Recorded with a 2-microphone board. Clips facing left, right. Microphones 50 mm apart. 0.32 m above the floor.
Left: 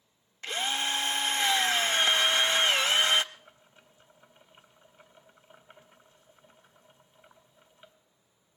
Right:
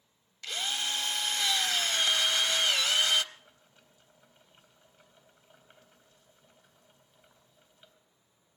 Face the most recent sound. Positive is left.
turn(degrees=25)  # may be behind; listen again after turning